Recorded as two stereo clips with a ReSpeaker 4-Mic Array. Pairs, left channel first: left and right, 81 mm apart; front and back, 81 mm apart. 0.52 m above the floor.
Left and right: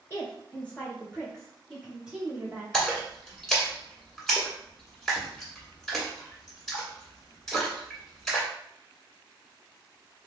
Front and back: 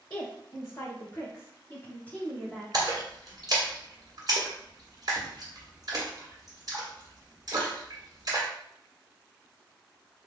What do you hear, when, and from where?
0.1 s a woman speaking: 30° left, 1.9 m; by 2.6 s 80° right, 1.2 m
2.7 s a splash: 175° left, 1.5 m